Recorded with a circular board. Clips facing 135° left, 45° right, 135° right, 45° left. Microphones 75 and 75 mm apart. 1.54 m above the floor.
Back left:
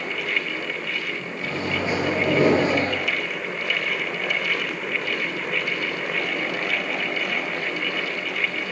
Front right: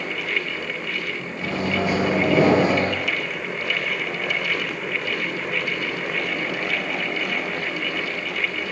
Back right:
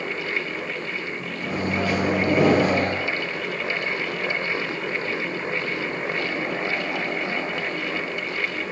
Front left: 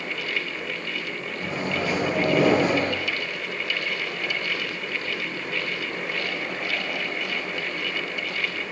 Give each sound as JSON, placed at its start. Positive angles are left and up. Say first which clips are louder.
{"t": 1.4, "sound": "a microwave", "louder": "front right 3 dB, back right 3 dB", "azimuth_deg": -50, "distance_m": 1.1}